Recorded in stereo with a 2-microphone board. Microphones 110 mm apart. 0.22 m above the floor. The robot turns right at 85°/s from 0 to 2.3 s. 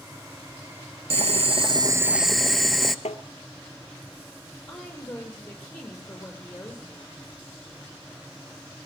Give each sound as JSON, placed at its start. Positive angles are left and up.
{"t": 1.1, "sound": "boiling", "azimuth_deg": -100, "distance_m": 0.8}
{"t": 3.0, "sound": "tapping", "side_deg": 85, "distance_m": 0.9}
{"t": 4.7, "sound": "a woman speaking", "side_deg": 10, "distance_m": 6.5}